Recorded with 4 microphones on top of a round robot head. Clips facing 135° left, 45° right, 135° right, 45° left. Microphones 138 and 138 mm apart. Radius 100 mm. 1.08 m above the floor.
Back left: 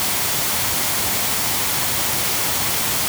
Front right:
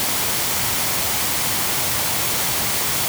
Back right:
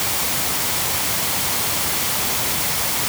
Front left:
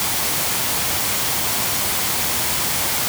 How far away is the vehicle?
No vehicle in this recording.